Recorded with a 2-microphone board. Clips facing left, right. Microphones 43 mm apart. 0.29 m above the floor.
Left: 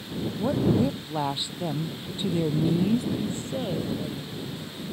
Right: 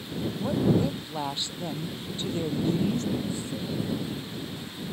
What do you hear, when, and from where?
0.4 s a woman speaking: 10° left (ahead or behind)
3.1 s a woman speaking: 50° left (ahead or behind)